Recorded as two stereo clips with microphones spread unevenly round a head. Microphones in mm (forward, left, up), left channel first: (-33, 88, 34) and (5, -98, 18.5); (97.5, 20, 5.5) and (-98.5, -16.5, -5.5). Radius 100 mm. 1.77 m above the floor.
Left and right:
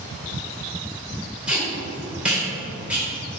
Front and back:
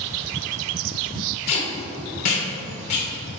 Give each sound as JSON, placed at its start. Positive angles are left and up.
{"t": 1.5, "sound": "tape being pulled", "azimuth_deg": 5, "distance_m": 2.5}